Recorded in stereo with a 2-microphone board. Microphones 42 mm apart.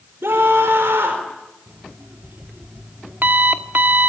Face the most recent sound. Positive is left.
turn(degrees=-55)  # may be behind; listen again after turning